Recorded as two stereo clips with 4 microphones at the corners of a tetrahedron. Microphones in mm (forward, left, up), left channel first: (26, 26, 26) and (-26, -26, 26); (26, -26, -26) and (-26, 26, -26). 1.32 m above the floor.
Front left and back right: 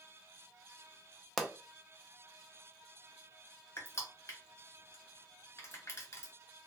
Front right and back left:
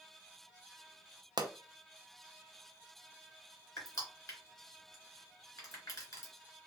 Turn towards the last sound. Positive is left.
turn(degrees=0)